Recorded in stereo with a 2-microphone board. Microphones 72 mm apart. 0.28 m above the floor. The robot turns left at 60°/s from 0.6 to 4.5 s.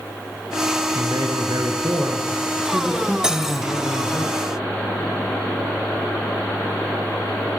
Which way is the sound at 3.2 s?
10° right (ahead or behind).